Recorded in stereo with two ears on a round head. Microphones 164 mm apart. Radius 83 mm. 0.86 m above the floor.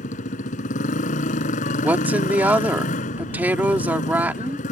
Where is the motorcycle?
50° left (ahead or behind).